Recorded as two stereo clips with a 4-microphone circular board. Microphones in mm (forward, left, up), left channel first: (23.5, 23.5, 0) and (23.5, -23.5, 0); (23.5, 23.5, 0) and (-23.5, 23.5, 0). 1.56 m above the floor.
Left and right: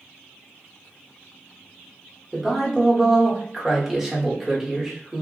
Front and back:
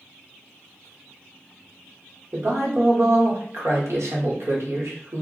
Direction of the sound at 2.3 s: 170° right.